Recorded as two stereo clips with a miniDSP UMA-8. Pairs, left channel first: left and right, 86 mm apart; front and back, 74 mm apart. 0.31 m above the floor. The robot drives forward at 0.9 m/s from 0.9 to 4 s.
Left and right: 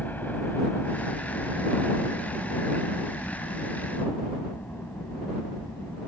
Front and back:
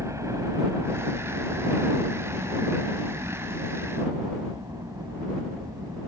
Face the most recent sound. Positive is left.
turn(degrees=160)